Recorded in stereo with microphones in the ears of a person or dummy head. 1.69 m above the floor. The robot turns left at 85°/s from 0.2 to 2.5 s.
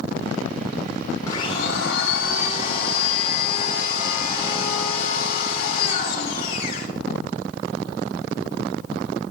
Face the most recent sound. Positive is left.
turn(degrees=55)